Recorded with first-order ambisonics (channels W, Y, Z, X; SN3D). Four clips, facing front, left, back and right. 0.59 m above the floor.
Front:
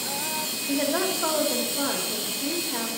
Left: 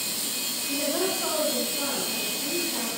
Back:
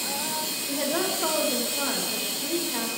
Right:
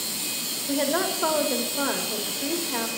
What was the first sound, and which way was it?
A woman speaking, 80° right.